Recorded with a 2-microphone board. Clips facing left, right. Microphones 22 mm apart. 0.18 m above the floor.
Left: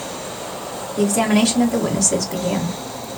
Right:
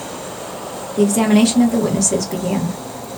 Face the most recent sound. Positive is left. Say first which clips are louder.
# right 3 dB
turn(degrees=5)  # may be behind; listen again after turning